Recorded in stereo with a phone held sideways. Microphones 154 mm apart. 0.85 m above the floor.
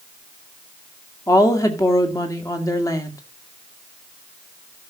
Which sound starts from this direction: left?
A woman speaking, at 1.3 s.